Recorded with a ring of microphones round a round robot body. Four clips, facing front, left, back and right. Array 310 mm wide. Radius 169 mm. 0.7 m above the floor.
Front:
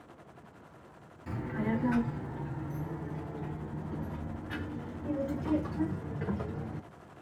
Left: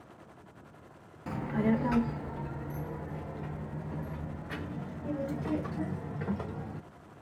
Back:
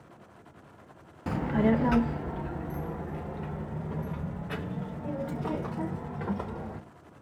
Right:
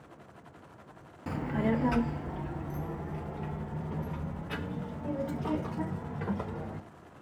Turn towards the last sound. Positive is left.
turn(degrees=-170)